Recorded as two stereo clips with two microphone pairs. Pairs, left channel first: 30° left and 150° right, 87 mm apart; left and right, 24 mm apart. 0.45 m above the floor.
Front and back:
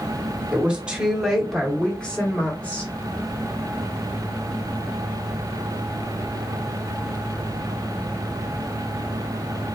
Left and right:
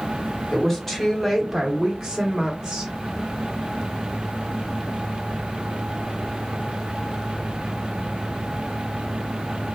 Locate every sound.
0.5 s a woman speaking: 145° left, 1.1 m; by 2.9 s 30° right, 1.4 m